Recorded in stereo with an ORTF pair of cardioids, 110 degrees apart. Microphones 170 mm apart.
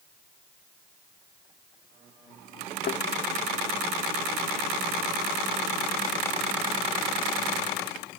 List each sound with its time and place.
2.9 s a thud: 55° left